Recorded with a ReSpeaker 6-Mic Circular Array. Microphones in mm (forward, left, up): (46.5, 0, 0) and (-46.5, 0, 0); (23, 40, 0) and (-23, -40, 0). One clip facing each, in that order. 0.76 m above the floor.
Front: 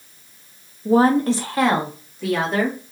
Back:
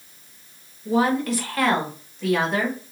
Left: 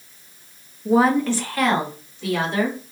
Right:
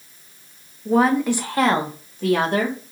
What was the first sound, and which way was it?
A woman speaking, 15° right.